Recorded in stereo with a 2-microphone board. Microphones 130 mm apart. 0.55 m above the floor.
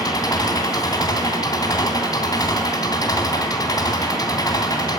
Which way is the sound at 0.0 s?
30° left (ahead or behind).